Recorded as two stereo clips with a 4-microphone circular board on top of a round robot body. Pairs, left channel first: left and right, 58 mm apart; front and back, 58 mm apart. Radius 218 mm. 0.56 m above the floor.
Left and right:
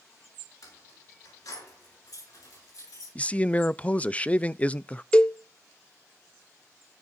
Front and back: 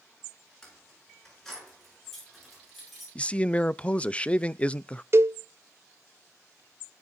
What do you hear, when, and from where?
0.6 s keys jangling: 80° left, 7 m; by 3.0 s 95° left, 9 m
3.1 s a man speaking: 45° left, 0.6 m
5.1 s a cowbell: 160° left, 0.7 m